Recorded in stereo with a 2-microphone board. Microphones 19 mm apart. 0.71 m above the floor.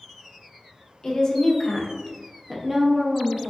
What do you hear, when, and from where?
1.0 s a woman speaking: 35° left (ahead or behind), 0.8 m; by 3.5 s 35° right (ahead or behind), 1.0 m